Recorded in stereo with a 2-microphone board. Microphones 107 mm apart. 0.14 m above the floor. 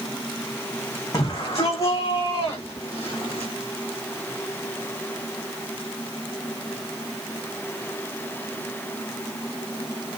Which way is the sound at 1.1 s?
35° left (ahead or behind).